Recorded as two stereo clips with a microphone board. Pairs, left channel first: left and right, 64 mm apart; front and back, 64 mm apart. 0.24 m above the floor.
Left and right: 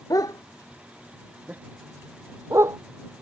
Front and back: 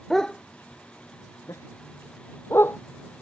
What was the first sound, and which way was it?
A dog barking, 85° left.